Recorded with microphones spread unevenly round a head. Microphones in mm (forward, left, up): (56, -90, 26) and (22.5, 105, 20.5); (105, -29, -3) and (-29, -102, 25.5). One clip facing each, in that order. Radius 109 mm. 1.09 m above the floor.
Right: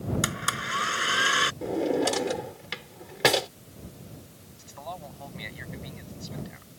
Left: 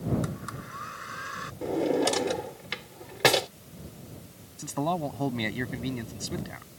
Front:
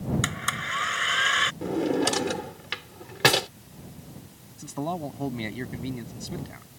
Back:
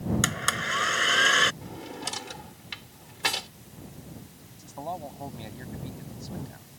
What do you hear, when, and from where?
0.2 s a blender: 110° right
1.6 s a drawer: 5° left
4.6 s a man speaking: 75° left